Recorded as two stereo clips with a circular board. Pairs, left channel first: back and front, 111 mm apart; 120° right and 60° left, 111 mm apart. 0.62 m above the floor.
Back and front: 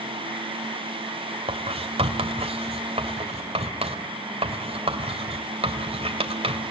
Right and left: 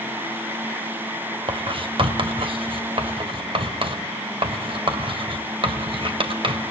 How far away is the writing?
About 2.5 m.